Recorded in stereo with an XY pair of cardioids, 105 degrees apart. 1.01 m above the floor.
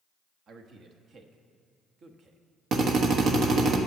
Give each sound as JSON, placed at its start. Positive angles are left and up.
{"t": 0.5, "sound": "a man speaking", "azimuth_deg": -60, "distance_m": 1.1}
{"t": 2.7, "sound": "a drill", "azimuth_deg": -70, "distance_m": 1.2}